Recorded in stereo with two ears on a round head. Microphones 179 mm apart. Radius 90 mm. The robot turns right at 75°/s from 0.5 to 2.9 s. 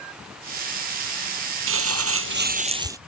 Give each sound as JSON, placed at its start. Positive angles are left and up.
{"t": 1.7, "sound": "crumpling", "azimuth_deg": -110}